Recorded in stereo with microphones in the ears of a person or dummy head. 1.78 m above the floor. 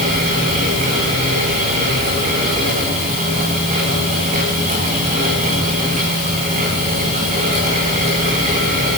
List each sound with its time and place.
0.0 s a fan: 45° right (ahead or behind), 8.5 m